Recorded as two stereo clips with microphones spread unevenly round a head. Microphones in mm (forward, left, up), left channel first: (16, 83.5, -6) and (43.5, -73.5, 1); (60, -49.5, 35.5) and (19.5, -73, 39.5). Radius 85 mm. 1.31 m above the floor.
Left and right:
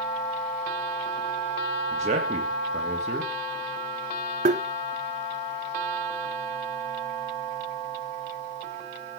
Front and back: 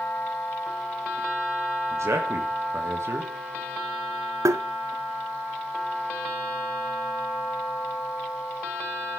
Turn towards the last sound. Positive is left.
turn(degrees=-135)